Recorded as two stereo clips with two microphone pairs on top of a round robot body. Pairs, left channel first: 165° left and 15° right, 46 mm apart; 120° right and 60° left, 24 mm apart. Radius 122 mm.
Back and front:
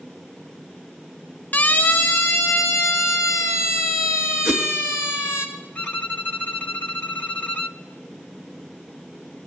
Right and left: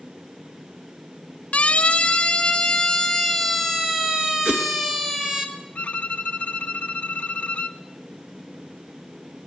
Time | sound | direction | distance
1.5 | a siren | 145° right | 3 m
4.5 | a whoosh | 75° left | 3 m
5.8 | a violin | 145° right | 0.6 m